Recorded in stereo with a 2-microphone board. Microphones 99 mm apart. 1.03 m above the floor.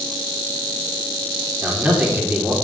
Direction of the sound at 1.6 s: 15° right (ahead or behind).